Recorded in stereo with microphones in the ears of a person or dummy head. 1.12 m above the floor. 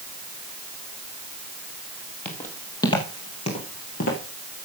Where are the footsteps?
10° left (ahead or behind), 2 m; by 4.2 s 55° left (ahead or behind), 2.5 m.